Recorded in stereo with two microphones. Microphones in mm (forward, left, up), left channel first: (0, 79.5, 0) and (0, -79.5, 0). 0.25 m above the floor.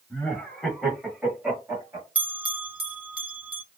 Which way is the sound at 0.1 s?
10° left (ahead or behind).